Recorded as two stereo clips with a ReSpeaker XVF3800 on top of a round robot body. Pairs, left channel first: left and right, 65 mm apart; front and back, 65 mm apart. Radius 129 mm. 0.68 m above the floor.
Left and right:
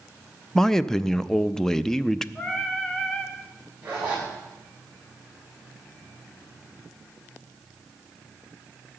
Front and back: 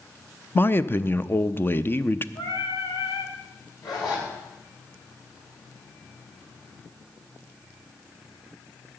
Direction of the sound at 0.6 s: 15° left.